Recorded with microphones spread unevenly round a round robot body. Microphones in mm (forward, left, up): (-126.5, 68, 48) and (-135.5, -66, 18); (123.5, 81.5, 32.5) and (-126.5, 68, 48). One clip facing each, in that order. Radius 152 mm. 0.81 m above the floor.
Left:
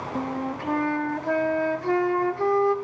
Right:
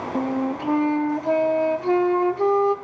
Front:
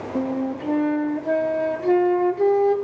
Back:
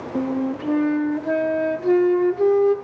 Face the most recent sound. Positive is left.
turn(degrees=-95)